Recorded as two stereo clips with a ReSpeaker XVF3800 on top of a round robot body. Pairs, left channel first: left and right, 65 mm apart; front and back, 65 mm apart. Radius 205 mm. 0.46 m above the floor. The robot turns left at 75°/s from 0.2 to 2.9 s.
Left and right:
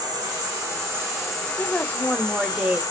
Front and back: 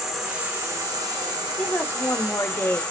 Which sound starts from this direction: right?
An insect, at 0.0 s.